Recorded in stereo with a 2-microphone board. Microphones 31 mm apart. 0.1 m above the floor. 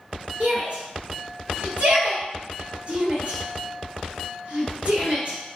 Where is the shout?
45° right (ahead or behind), 2 m.